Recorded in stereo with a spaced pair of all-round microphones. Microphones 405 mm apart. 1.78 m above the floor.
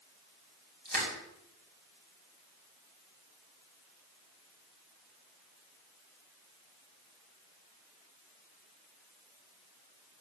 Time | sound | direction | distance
0.8 | crushing | 20° right (ahead or behind) | 4 m